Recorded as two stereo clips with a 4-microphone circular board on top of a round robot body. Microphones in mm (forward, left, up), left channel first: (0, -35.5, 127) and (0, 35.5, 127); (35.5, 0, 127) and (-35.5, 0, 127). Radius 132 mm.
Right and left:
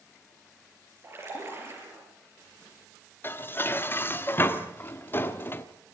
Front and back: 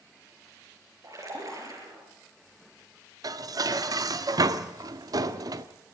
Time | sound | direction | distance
1.0 | a splash | 145° left | 6.5 m
3.2 | dishes clattering | 150° right | 1.2 m